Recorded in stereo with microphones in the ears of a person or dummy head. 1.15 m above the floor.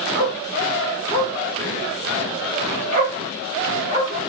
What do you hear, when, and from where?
0.1 s a dog barking: 65° right (ahead or behind), 1.5 m; by 4.3 s 30° right (ahead or behind), 2 m